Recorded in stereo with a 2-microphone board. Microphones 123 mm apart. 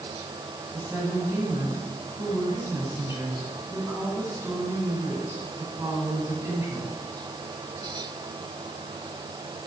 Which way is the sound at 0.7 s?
20° right (ahead or behind).